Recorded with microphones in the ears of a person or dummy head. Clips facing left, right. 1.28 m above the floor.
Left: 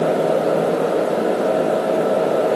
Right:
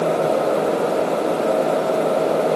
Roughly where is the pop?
No pop in this recording.